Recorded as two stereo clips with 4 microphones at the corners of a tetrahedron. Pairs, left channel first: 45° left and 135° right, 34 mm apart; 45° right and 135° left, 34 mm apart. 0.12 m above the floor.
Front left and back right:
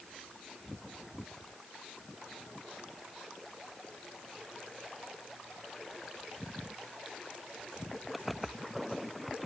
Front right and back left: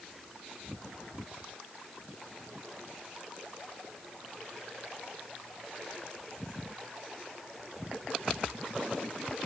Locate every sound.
Only background noise.